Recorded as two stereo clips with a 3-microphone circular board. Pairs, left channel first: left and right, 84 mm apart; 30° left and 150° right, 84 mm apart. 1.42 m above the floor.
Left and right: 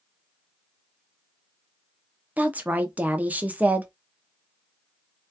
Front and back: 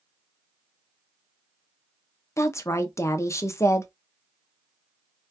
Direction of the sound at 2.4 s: 20° right.